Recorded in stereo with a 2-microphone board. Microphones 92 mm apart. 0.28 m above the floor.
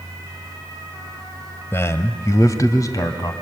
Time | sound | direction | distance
1.7 | a man speaking | 30° left (ahead or behind) | 1.0 m